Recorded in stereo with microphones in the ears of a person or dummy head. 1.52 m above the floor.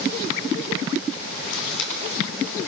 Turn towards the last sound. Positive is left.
turn(degrees=85)